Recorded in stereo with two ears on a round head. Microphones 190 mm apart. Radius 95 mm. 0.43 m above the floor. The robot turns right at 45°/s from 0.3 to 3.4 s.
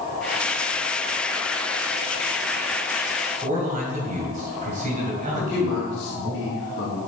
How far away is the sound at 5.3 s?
About 3 m.